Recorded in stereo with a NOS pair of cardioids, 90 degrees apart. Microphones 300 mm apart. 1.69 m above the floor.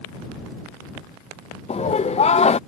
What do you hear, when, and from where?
1.7 s laughter: 20° left